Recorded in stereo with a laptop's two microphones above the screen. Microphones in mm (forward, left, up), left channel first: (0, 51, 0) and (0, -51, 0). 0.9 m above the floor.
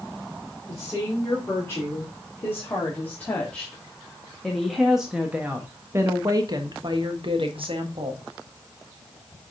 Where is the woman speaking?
25° left (ahead or behind), 3.5 m; by 8.2 s 65° right (ahead or behind), 1.6 m.